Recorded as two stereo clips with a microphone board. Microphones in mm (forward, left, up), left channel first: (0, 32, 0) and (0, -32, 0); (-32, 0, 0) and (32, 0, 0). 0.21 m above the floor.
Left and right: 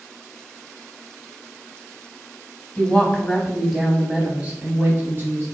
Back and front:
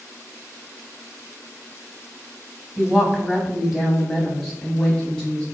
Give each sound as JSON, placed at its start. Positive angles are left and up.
{"t": 2.8, "sound": "a woman speaking", "azimuth_deg": 65, "distance_m": 1.1}